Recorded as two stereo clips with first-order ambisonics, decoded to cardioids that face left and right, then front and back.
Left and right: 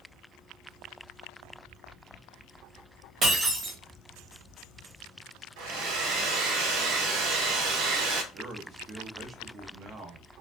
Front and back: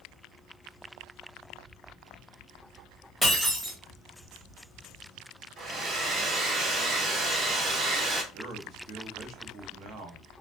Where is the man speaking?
145° right, 0.6 m.